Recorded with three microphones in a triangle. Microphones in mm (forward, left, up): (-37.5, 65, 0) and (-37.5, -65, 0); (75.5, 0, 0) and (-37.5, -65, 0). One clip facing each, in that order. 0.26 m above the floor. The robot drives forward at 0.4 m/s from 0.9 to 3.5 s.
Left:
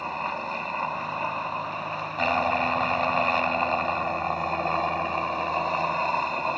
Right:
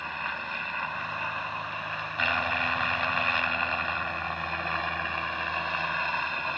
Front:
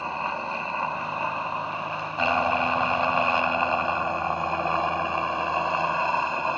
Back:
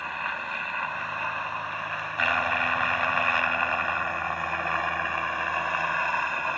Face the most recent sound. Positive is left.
turn(degrees=80)